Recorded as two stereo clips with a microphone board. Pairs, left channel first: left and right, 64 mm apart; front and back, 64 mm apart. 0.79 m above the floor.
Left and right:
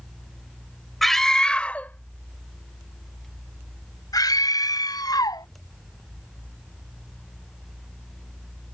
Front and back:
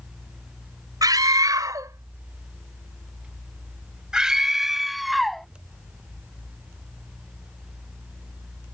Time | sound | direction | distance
1.0 | a scream | 175° left | ?